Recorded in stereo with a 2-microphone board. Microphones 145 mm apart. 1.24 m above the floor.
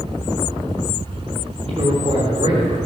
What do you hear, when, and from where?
1.7 s a man speaking: 45° right (ahead or behind), 3.5 m